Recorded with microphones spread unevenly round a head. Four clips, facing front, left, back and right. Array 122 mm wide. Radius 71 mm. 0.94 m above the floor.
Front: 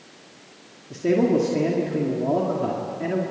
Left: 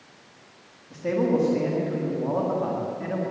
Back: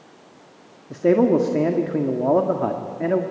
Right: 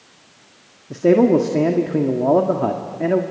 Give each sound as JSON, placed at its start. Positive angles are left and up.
{"t": 0.9, "sound": "a man speaking", "azimuth_deg": -110, "distance_m": 1.7}